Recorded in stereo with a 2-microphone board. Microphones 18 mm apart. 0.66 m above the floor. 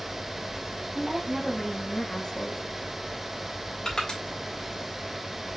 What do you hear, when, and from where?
0.9 s a woman speaking: 15° right (ahead or behind), 1.6 m; by 2.6 s 50° left (ahead or behind), 1.3 m
3.9 s crushing: 45° left (ahead or behind), 1.8 m